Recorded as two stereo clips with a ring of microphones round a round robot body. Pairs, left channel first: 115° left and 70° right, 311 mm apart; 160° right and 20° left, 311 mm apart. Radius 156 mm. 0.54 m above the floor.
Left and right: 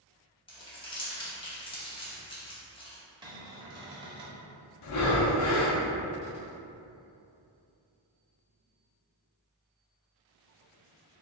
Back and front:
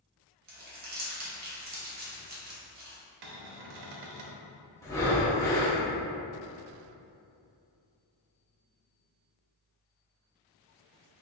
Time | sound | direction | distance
0.5 | crumpling | 50° left | 0.8 m
3.2 | a cupboard door | 10° left | 0.6 m
4.8 | breathing | 125° left | 0.5 m